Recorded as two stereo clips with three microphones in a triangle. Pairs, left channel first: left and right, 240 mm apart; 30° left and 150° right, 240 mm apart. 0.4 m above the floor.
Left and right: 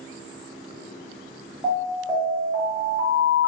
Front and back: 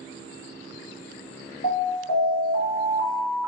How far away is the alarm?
About 1.2 m.